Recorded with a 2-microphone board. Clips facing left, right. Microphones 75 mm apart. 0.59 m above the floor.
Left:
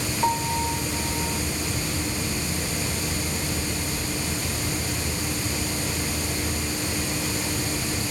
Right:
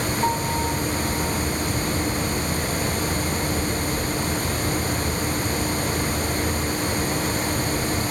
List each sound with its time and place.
0.2 s a piano: centre (ahead or behind)